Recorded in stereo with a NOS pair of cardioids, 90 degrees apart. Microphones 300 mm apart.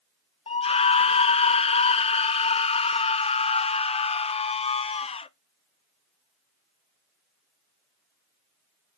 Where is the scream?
20° left, 0.5 m.